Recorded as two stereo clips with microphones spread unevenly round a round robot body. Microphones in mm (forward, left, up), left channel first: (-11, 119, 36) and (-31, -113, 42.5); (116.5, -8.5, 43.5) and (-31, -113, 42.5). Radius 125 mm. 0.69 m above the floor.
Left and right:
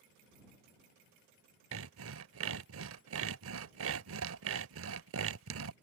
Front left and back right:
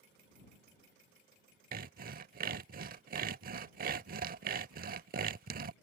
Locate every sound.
1.7 s sawing: 115° right